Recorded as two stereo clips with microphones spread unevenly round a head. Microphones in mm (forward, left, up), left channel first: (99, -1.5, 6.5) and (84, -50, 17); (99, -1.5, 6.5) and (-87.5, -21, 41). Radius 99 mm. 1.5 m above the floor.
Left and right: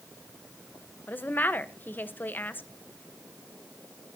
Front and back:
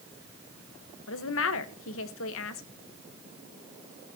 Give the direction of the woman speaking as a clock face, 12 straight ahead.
11 o'clock.